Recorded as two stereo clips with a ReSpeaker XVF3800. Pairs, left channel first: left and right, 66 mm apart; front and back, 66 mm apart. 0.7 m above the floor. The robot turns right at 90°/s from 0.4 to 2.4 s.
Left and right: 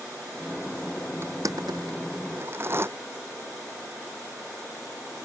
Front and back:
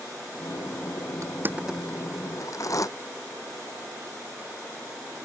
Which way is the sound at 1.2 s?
145° right.